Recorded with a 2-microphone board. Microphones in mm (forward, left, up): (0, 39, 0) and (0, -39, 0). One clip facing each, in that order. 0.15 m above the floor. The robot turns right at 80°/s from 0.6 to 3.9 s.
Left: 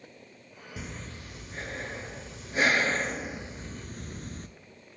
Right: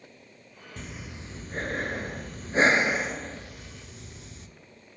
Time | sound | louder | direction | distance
0.8 | breathing | even | 170° left | 0.6 m